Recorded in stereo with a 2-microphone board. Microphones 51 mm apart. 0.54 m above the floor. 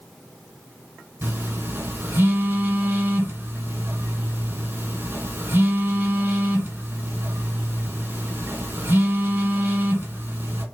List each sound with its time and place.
1.2 s a phone buzzing: 45° right (ahead or behind), 1.1 m